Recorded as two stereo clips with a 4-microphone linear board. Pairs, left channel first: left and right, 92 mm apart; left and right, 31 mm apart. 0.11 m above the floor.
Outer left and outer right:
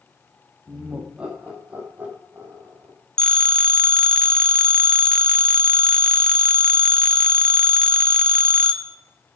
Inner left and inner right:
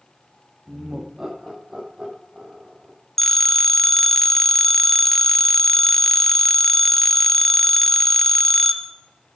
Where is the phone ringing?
10° left (ahead or behind), 1.0 m.